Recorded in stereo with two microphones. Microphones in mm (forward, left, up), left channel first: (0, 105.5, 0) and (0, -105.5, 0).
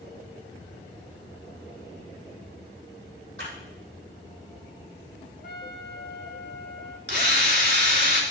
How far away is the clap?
About 4.5 m.